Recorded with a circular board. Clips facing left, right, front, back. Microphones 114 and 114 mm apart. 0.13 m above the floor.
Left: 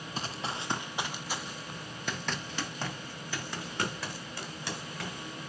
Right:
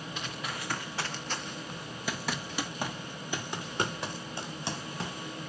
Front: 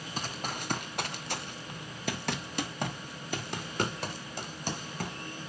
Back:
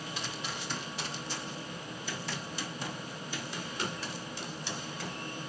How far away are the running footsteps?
About 1.2 m.